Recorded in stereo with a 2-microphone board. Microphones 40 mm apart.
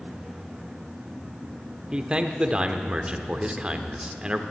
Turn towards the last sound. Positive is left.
turn(degrees=-25)  # may be behind; listen again after turning